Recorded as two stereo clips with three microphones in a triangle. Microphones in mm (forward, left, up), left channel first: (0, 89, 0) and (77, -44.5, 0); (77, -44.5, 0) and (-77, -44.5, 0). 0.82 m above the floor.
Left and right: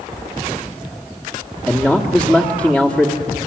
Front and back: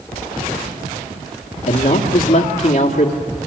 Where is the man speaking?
20° left, 1.7 m.